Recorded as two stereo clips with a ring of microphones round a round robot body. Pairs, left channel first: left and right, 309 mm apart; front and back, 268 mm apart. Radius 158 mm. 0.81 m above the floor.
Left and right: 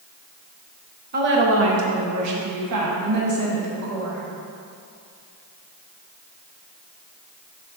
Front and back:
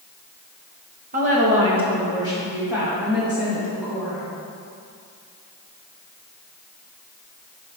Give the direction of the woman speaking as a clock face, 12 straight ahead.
4 o'clock.